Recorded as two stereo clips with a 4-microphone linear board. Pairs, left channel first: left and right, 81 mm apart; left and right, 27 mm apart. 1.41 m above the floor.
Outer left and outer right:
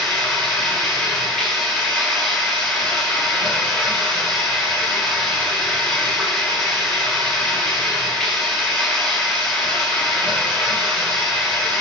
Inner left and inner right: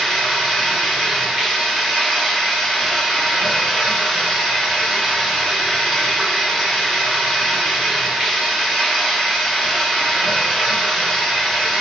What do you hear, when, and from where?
0.0 s running water: 5° left (ahead or behind), 9.5 m